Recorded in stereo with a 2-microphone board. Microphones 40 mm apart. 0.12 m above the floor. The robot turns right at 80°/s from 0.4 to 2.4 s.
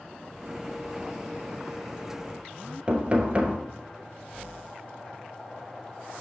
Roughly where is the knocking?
Right.